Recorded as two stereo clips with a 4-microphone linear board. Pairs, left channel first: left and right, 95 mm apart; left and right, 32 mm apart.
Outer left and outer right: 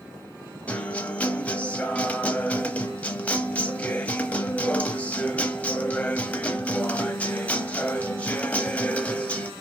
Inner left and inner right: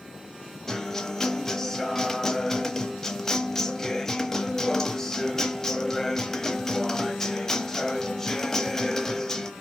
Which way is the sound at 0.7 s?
15° left (ahead or behind).